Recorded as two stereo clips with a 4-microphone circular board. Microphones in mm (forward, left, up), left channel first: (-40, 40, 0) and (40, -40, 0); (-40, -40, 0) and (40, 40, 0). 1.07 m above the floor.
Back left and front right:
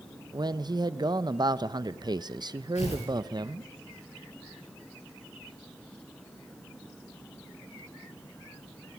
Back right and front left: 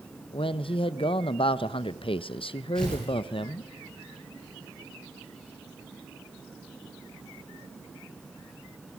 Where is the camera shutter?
No camera shutter in this recording.